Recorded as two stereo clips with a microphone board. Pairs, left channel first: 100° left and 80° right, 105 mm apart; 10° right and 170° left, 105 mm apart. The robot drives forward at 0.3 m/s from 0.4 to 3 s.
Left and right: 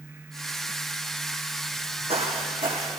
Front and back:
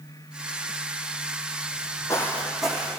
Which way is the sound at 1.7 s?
40° right.